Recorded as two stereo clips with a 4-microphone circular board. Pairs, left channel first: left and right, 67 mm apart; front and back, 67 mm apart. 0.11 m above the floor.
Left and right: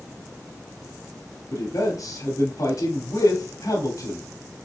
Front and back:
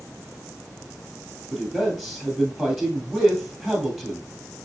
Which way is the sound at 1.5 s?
85° left.